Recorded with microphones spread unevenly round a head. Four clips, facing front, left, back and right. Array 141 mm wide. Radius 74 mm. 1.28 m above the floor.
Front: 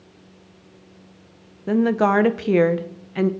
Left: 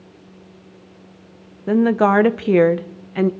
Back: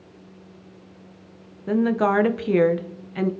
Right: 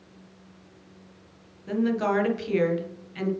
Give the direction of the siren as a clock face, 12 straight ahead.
I don't hear a siren.